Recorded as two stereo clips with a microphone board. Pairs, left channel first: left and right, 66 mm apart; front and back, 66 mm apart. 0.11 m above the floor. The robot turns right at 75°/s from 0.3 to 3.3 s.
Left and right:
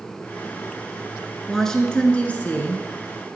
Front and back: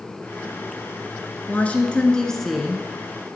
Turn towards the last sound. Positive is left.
turn(degrees=140)